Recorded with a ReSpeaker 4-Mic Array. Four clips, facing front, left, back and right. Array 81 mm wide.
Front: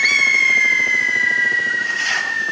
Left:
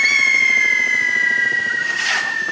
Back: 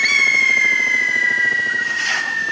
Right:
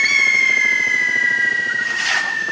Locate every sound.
Only background noise.